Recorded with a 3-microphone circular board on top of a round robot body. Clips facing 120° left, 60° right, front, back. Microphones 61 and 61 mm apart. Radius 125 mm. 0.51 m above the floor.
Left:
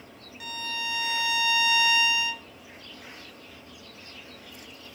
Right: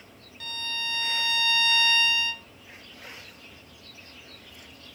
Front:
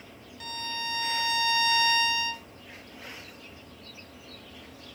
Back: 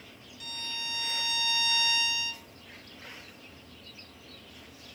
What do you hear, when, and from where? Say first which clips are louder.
0.4 s a violin: left 1 dB, front 5 dB; 45° left, 0.6 m